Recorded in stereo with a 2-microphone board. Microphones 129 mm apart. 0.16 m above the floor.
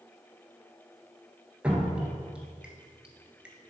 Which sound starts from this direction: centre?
Dripping, at 1.6 s.